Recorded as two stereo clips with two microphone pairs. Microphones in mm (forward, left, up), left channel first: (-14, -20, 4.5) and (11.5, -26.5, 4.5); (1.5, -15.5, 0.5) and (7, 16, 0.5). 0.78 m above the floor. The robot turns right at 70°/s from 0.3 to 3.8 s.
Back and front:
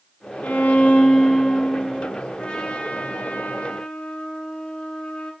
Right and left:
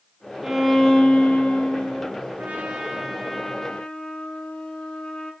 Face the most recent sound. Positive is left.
turn(degrees=-150)